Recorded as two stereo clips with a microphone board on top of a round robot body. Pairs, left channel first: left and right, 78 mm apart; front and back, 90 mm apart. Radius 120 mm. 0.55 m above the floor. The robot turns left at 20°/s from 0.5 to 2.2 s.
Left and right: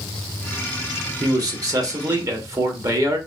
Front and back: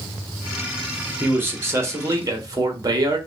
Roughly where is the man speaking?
Behind right.